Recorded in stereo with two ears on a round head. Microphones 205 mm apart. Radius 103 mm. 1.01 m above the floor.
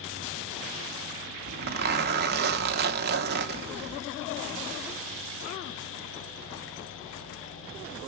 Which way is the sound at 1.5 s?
45° right (ahead or behind).